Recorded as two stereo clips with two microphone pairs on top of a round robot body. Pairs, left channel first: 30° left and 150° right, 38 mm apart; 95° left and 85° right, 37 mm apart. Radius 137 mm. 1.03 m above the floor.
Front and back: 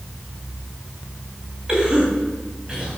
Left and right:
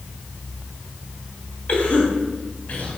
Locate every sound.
1.7 s a cough: 145° left, 3 m